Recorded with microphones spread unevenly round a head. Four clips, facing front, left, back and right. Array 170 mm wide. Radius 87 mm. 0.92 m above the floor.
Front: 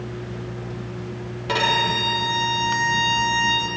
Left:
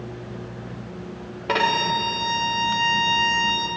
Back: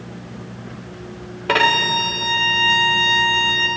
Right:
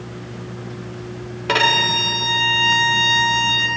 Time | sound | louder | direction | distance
1.5 | a violin | right 2 dB, back 4 dB | 165° right | 0.9 m